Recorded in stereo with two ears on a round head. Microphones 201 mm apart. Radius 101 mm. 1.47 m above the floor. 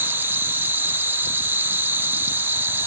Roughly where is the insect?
Centre.